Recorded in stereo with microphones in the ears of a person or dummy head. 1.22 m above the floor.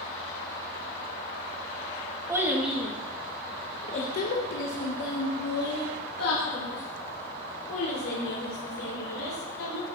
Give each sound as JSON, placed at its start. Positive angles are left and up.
{"t": 2.3, "sound": "a child speaking", "side_deg": -15, "distance_m": 1.4}